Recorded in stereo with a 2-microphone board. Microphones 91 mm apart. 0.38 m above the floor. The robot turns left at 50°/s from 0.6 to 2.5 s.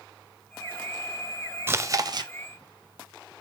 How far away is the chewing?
About 0.5 m.